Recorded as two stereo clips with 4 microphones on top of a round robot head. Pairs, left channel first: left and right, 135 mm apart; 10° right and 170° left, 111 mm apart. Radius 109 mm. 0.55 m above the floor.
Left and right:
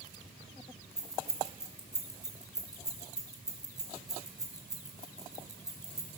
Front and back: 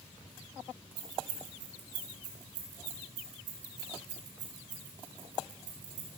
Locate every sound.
1.0 s keys jangling: 175° right, 3.5 m